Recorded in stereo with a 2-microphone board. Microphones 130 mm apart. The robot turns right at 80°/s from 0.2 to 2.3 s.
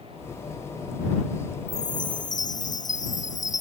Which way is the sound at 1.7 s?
55° left.